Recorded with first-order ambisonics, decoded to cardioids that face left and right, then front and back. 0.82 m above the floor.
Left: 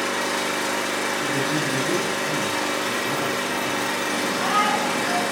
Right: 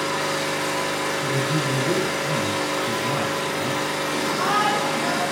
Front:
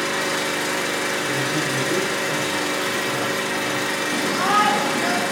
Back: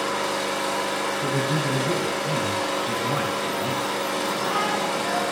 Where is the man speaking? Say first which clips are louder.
Even, front 2 dB; 120° right, 3.5 m.